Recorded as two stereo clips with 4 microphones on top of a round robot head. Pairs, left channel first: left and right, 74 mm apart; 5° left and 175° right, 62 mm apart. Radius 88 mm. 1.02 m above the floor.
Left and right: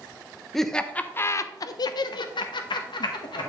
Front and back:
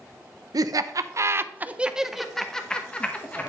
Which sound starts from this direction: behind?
Laughter, at 0.5 s.